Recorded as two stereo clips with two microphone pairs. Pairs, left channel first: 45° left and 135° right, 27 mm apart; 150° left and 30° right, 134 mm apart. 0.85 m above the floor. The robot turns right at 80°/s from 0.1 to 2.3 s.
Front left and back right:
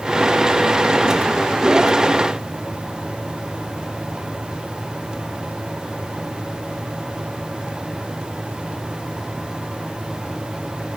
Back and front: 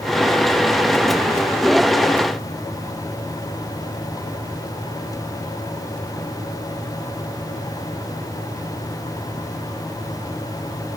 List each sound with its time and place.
Only background noise.